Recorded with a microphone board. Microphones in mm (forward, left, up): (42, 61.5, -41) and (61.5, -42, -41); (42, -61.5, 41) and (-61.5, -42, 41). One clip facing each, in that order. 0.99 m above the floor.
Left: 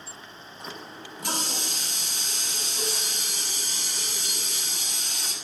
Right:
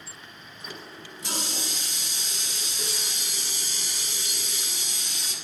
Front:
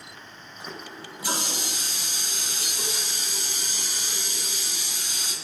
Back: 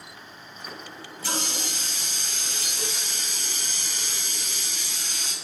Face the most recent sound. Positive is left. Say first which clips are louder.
# left 2 dB, front 2 dB
turn(degrees=65)